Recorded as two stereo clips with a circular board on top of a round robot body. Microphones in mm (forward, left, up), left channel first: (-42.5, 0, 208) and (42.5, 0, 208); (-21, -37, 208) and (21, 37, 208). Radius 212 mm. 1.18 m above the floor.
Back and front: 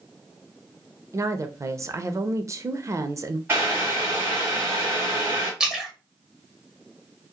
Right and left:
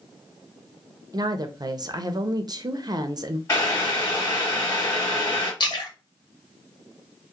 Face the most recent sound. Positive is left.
turn(degrees=-85)